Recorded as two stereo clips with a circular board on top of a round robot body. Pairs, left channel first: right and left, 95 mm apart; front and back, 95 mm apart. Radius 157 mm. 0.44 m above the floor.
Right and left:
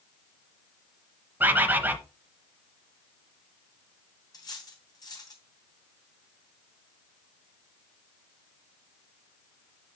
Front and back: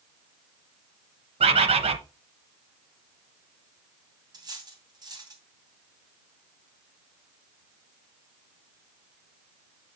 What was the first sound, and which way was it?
A bird, 165° left.